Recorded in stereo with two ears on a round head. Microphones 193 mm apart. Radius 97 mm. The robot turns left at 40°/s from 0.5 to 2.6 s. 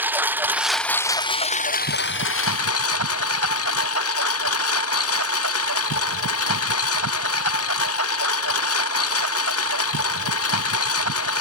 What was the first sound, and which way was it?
A lawn mower, 170° right.